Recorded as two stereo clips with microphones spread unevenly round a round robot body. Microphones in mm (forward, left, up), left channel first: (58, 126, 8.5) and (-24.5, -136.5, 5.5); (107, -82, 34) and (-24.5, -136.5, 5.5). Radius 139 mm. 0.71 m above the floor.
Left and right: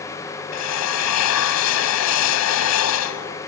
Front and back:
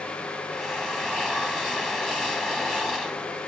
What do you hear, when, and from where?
0.5 s a drill: 110° left